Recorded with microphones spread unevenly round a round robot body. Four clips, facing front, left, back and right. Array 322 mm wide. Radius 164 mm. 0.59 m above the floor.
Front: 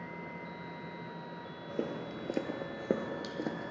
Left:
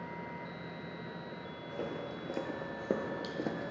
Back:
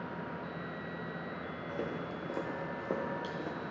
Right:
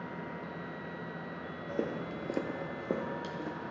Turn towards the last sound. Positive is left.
turn(degrees=50)